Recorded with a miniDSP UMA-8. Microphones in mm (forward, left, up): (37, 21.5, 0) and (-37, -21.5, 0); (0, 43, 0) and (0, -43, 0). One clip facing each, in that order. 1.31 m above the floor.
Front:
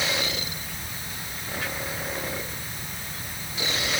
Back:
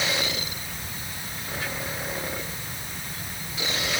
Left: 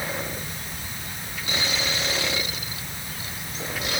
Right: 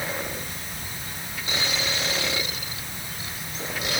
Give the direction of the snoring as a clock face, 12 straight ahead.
I don't hear snoring.